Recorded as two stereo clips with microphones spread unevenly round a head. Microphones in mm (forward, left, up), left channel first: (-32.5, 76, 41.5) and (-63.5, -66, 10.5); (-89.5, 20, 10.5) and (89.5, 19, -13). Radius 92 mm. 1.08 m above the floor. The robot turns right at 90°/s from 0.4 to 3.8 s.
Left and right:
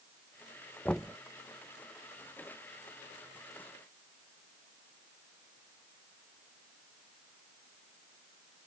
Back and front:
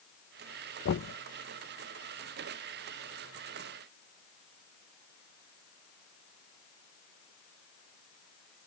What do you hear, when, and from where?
0.8 s knocking: 160° left; by 1.2 s 170° right